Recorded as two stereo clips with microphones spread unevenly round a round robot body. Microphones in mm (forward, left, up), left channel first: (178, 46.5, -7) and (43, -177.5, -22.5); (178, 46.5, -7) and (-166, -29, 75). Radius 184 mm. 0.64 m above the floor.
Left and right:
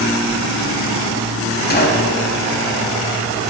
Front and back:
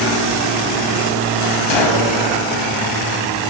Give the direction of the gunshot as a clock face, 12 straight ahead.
12 o'clock.